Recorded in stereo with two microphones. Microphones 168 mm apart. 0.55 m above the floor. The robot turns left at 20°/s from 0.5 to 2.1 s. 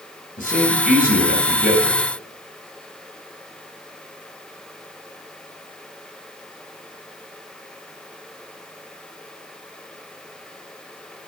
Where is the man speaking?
50° left (ahead or behind), 2.5 m; by 2.0 s 65° left (ahead or behind), 2.5 m.